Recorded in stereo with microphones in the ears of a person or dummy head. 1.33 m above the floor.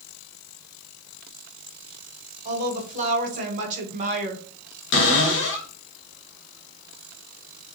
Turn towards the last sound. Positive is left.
turn(degrees=55)  # may be behind; listen again after turning